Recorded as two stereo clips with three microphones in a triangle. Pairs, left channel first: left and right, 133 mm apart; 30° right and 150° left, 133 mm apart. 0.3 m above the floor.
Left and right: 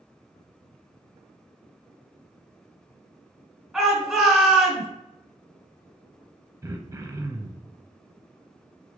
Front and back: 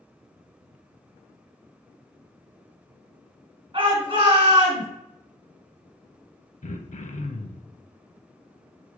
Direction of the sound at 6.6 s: 25° right.